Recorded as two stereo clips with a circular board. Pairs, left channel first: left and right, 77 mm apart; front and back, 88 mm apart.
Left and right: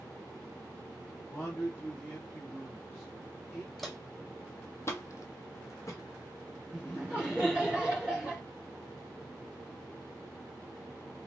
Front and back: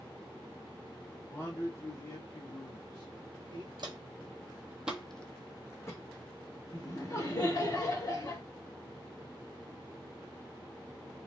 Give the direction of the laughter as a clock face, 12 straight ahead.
1 o'clock.